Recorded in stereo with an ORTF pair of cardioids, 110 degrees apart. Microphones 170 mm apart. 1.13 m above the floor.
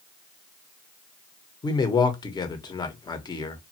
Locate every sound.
1.6 s a man speaking: 25° left, 1.0 m